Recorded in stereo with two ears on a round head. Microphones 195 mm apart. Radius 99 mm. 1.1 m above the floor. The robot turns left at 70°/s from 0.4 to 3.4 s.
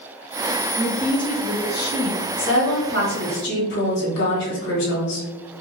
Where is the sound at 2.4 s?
125° left, 1.4 m; by 5.3 s 55° left, 1.4 m.